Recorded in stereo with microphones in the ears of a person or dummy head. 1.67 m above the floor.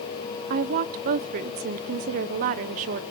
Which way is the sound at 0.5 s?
40° right (ahead or behind).